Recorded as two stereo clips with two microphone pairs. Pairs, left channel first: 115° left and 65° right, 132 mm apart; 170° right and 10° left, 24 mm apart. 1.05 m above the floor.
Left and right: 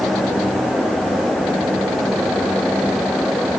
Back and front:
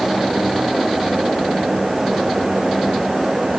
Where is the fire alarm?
I don't hear a fire alarm.